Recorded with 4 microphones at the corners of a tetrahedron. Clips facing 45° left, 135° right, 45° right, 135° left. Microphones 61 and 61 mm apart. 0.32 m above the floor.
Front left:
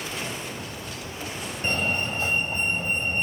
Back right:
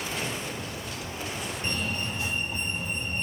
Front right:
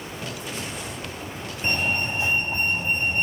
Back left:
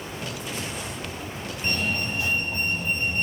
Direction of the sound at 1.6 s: 10° left.